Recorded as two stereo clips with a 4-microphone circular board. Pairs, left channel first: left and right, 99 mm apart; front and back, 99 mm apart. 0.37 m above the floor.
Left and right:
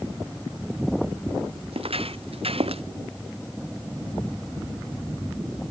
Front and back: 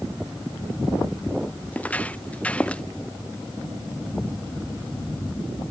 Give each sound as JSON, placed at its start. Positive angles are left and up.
{"t": 1.7, "sound": "footsteps", "azimuth_deg": -75}